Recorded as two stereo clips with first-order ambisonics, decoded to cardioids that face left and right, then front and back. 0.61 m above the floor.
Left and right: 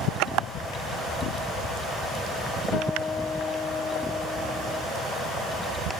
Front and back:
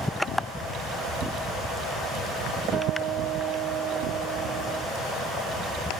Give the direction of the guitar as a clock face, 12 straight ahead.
8 o'clock.